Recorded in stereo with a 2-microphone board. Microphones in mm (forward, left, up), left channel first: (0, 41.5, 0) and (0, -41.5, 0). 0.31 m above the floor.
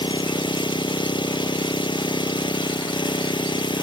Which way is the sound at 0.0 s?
70° left (ahead or behind).